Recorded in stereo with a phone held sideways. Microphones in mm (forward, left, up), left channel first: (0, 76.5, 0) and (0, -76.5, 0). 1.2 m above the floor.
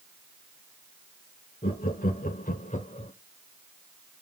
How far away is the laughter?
About 1.4 m.